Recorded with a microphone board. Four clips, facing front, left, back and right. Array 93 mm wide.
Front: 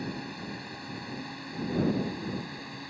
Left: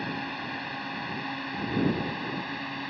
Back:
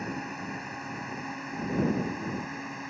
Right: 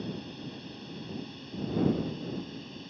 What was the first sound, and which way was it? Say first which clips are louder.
A drone: left 6 dB, back 2 dB; 115° left.